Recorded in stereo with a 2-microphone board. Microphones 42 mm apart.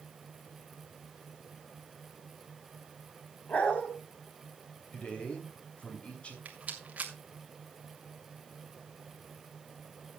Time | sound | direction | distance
3.5 | a dog barking | 35° left (ahead or behind) | 3.5 m
4.9 | a man speaking | 30° left (ahead or behind) | 3 m
6.5 | a rattle | 35° right (ahead or behind) | 2 m